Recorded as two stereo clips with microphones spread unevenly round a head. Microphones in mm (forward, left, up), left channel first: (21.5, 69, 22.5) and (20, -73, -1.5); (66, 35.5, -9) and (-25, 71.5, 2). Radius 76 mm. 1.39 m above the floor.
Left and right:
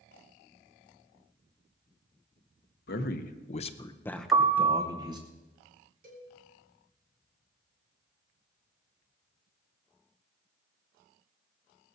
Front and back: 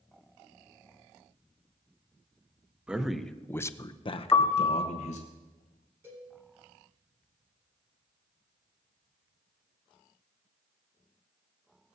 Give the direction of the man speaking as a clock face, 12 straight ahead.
9 o'clock.